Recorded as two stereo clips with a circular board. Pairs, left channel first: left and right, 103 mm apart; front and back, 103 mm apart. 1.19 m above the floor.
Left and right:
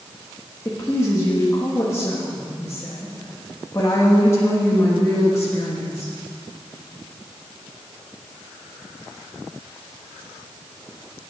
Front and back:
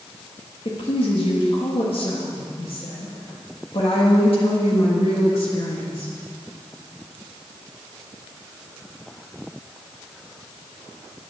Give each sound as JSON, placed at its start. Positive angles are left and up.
{"t": 0.7, "sound": "a woman speaking", "azimuth_deg": 30, "distance_m": 1.4}